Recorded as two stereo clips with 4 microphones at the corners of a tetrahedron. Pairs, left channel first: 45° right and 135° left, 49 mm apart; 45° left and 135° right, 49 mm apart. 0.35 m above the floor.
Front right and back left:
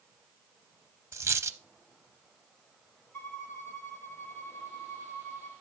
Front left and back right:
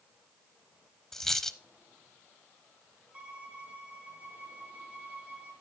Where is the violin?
70° right, 3 m.